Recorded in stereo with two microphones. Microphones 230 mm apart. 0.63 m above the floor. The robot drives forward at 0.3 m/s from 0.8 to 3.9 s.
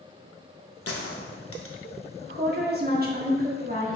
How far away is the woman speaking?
About 0.8 m.